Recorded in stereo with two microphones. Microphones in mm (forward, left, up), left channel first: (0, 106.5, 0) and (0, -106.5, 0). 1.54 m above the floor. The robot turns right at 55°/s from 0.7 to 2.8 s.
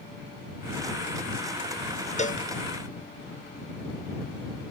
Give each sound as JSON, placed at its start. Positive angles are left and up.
{"t": 2.2, "sound": "a cowbell", "side_deg": 35}